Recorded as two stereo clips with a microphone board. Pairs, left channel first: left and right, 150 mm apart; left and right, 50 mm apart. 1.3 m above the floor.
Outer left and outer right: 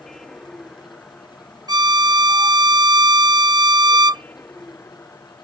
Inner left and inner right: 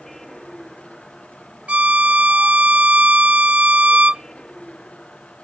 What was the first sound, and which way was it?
A vehicle, 5° left (ahead or behind).